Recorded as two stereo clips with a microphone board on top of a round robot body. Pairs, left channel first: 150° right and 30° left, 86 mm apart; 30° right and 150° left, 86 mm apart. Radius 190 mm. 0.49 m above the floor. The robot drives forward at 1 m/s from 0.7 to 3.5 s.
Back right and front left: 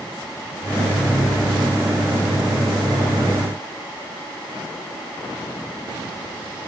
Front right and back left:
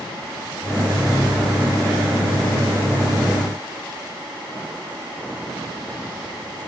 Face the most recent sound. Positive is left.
No sound to turn to.